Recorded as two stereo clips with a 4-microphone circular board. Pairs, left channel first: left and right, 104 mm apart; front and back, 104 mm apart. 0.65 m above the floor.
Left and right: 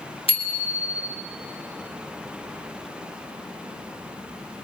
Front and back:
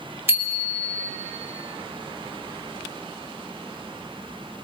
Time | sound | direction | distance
0.3 | a bicycle bell | 115° left | 3 m